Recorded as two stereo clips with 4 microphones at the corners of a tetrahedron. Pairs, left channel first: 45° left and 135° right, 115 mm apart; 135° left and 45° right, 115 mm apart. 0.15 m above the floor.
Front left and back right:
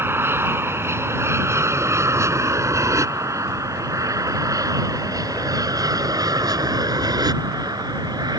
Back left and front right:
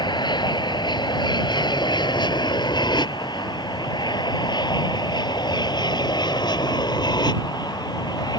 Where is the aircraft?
165° left; by 8.4 s straight behind.